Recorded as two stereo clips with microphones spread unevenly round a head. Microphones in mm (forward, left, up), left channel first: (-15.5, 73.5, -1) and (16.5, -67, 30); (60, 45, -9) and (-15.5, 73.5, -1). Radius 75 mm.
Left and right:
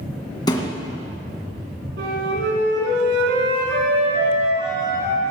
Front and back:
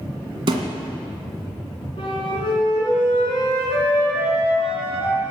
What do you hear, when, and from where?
0.5 s a thud: 175° left, 1.9 m
2.0 s a flute: 75° right, 4.5 m